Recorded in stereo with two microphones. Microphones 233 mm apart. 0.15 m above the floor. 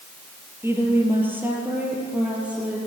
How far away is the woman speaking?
About 4 m.